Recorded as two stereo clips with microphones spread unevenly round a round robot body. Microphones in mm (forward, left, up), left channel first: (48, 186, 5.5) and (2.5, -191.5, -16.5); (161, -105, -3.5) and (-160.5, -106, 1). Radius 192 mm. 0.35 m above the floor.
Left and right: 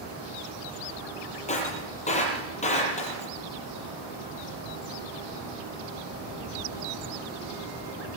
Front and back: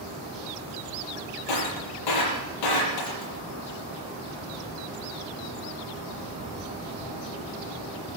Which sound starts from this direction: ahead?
Breaking glass, at 1.5 s.